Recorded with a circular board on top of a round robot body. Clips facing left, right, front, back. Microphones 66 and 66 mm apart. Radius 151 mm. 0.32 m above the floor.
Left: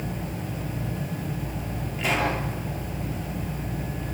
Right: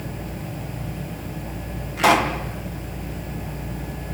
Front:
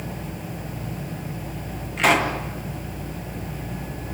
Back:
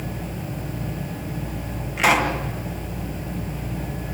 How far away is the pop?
About 3 m.